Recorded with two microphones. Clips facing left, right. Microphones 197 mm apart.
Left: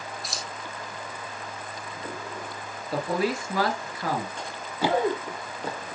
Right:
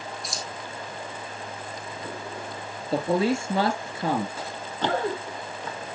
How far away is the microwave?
I don't hear a microwave.